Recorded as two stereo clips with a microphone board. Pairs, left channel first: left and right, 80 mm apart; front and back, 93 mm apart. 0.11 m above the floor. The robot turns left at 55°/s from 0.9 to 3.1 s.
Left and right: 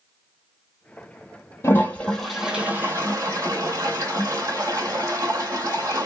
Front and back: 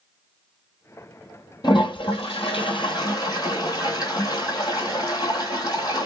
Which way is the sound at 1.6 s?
35° left.